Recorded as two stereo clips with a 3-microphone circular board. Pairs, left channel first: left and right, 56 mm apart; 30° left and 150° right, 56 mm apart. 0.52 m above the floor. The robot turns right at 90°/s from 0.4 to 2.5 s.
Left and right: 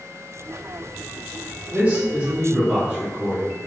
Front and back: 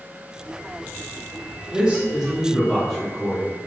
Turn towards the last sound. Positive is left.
turn(degrees=-45)